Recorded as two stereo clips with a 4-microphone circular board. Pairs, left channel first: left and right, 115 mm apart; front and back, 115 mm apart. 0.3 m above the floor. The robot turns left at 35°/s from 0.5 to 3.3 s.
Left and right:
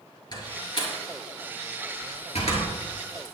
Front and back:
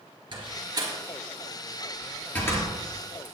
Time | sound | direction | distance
0.3 | a door slam | 140° left | 4.5 m